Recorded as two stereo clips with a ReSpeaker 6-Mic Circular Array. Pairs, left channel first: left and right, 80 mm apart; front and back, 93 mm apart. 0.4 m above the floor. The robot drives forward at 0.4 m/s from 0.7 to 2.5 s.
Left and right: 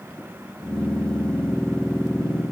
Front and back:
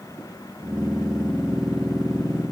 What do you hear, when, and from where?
Only background noise.